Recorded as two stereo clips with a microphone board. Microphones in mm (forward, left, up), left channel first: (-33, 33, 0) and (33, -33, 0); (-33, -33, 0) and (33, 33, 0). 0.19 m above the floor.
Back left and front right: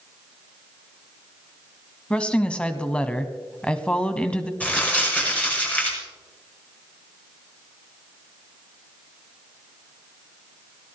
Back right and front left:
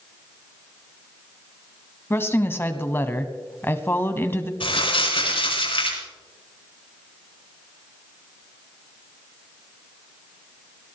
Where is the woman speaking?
160° right, 1.1 m.